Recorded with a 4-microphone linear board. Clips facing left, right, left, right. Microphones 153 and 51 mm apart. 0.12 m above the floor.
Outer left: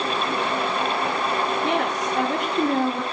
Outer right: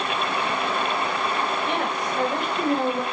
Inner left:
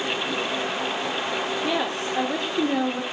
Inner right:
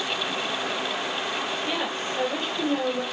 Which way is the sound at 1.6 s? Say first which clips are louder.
Outer left 3 dB, inner left 3 dB; 80° left.